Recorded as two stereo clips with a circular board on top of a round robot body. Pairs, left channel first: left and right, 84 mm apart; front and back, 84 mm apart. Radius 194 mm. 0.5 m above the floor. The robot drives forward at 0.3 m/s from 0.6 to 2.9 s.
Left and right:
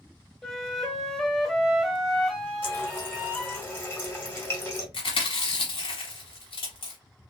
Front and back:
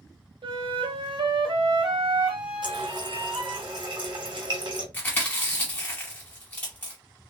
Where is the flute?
175° left, 0.8 m.